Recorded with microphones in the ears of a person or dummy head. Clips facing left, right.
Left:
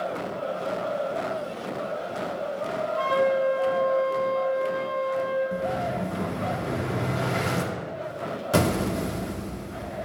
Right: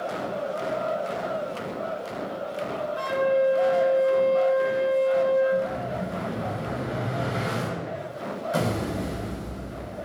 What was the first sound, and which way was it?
A flute, 20° right (ahead or behind).